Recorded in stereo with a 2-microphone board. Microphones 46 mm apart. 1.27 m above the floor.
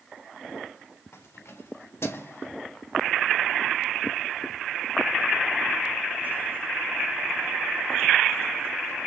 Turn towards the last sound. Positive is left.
turn(degrees=-70)  # may be behind; listen again after turning